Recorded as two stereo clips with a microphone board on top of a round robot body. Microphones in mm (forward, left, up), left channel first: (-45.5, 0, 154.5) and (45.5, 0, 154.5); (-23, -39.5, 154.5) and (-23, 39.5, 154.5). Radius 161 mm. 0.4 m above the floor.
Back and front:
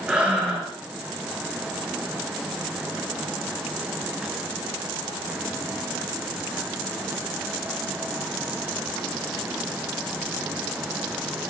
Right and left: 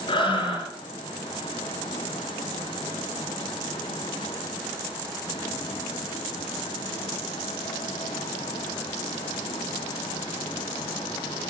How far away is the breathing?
About 7.5 m.